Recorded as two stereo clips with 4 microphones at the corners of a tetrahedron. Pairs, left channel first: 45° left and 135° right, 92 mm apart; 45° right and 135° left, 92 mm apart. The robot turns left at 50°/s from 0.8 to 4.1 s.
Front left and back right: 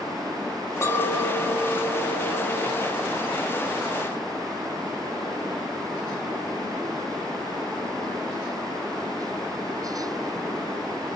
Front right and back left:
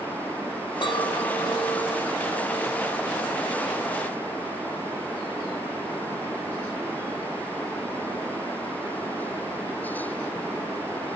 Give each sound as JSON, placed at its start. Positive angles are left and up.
{"t": 0.8, "sound": "a clink", "azimuth_deg": -15, "distance_m": 1.2}